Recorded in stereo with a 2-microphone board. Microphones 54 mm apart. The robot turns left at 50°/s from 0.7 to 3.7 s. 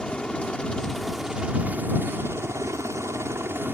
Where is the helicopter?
20° left; by 3.8 s 130° right.